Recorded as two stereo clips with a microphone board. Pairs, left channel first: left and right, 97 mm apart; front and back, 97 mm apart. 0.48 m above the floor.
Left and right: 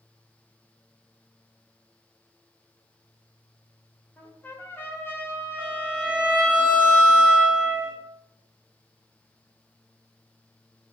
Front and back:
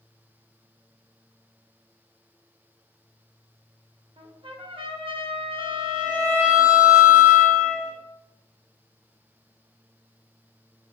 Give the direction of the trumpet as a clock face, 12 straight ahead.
7 o'clock.